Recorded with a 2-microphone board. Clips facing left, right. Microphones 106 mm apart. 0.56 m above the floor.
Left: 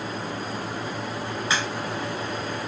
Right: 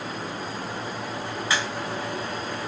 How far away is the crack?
About 3 m.